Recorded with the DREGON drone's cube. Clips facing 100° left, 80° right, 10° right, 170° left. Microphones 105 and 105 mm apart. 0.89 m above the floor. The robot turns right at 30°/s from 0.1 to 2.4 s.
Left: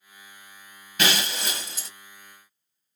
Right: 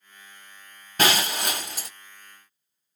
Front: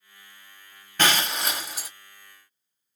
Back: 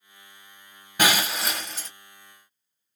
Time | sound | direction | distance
1.0 | breaking glass | 115° right | 1.0 m